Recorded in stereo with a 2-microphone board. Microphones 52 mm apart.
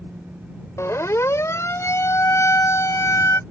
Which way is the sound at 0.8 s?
60° left (ahead or behind).